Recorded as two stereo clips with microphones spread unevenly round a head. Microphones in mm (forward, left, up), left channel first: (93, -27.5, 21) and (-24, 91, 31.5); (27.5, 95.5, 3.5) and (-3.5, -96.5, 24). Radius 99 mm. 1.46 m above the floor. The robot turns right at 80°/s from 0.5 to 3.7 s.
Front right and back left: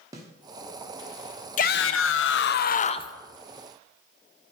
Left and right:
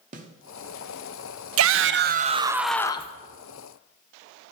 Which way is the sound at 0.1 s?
155° right.